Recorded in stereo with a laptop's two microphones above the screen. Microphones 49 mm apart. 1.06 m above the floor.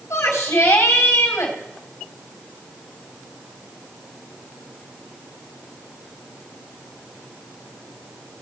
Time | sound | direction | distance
0.1 | a shout | 80° left | 3 m